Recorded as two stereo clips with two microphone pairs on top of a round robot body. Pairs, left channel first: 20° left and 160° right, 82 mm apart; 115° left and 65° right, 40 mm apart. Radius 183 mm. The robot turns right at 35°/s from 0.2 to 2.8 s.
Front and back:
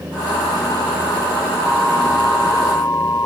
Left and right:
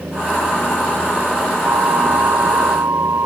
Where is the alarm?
80° right; by 3.3 s 40° right.